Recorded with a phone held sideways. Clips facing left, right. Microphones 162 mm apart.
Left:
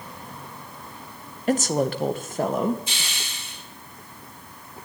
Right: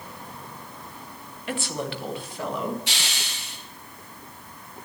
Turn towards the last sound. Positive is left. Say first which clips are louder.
# right 1 dB
turn(degrees=-75)  # may be behind; listen again after turning